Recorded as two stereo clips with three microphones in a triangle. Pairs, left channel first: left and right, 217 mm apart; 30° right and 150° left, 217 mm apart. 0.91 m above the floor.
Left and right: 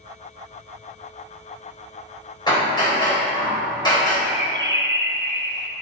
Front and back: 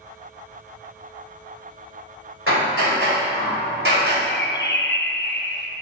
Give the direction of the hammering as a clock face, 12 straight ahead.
7 o'clock.